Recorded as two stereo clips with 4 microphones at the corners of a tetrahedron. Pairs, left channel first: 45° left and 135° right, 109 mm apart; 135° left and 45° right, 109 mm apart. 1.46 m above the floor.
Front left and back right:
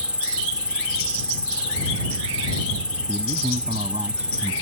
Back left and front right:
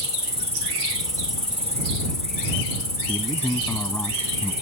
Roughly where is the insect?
Ahead right.